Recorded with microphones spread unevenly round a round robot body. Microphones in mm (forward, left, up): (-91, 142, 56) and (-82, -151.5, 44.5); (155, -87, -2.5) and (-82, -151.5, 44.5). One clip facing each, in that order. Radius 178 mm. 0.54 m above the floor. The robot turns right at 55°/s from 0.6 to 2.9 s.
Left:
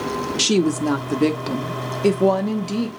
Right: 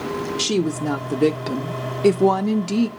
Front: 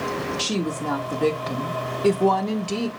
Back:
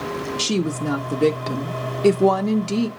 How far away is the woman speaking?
About 0.8 m.